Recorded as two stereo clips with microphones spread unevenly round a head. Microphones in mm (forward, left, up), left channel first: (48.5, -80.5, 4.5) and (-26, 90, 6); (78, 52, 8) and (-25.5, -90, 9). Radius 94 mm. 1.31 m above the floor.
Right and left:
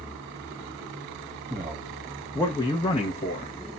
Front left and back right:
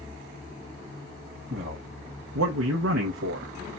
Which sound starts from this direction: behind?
A man speaking, at 1.5 s.